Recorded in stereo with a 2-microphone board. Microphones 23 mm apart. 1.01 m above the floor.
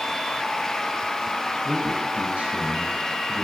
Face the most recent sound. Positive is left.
turn(degrees=-90)